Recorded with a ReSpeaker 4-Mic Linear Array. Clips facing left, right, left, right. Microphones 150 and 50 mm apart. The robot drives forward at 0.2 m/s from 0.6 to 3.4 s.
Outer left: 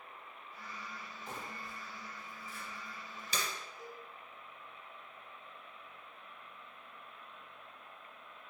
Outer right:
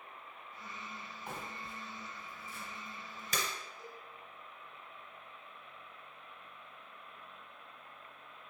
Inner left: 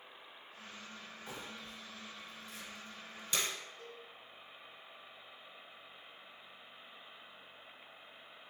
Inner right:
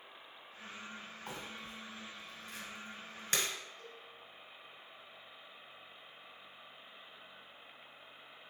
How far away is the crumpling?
About 1.3 m.